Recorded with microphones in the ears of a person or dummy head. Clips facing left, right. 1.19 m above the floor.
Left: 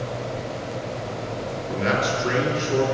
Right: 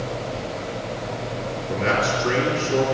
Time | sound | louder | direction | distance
1.7 | a man speaking | right 1 dB | 20° left (ahead or behind) | 3 m